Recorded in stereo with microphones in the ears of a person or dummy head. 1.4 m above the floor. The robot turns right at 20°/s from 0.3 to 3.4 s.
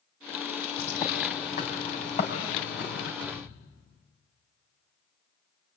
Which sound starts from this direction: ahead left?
A bird, at 0.8 s.